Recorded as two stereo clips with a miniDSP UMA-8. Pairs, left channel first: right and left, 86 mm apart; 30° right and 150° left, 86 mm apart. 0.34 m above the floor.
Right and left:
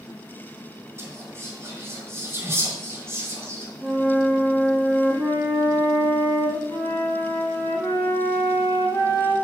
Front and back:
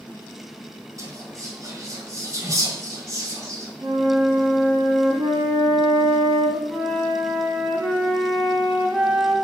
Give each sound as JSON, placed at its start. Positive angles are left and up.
{"t": 1.0, "sound": "whispering", "azimuth_deg": 130, "distance_m": 2.0}
{"t": 3.8, "sound": "a flute", "azimuth_deg": 160, "distance_m": 1.5}
{"t": 6.7, "sound": "a flute", "azimuth_deg": -125, "distance_m": 1.7}